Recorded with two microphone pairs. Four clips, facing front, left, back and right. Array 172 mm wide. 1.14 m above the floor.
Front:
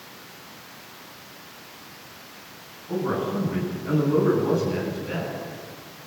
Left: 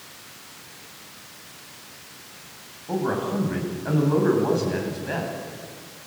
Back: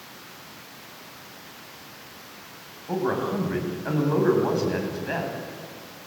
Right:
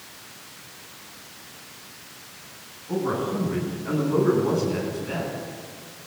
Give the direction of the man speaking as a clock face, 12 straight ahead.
8 o'clock.